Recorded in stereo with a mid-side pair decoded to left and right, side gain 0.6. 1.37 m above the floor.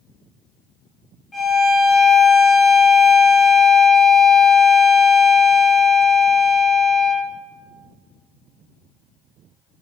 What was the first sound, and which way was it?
A violin, 20° left.